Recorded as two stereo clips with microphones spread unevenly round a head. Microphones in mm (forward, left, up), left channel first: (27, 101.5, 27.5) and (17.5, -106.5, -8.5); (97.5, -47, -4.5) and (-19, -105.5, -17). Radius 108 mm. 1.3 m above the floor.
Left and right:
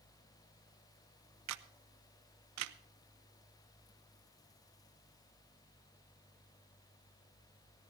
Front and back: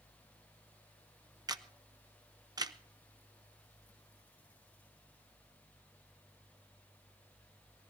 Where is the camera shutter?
90° right, 0.9 m.